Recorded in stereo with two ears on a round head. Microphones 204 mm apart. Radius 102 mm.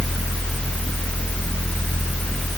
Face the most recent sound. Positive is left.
No sound to turn to.